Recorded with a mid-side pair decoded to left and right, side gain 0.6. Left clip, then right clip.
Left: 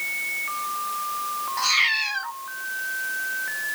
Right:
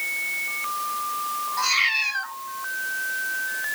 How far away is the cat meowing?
About 3.5 m.